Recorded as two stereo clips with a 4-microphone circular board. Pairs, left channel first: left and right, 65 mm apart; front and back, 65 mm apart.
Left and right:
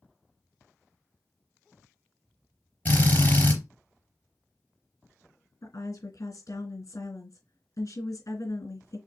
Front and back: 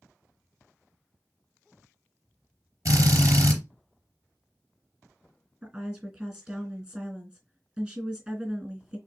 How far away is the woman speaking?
About 2.5 m.